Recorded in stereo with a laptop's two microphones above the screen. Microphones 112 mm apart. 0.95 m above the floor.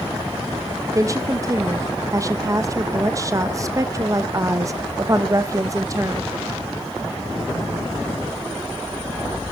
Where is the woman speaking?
30° right (ahead or behind), 0.6 m.